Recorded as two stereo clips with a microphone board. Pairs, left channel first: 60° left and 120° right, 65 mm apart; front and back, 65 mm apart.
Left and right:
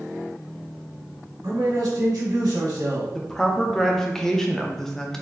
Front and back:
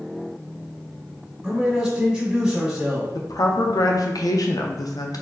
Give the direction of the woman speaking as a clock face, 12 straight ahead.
1 o'clock.